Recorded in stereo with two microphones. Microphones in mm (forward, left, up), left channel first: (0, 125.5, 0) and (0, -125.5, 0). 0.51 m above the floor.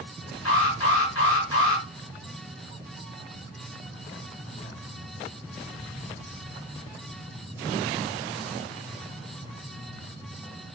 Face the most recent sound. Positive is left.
turn(degrees=75)  # may be behind; listen again after turning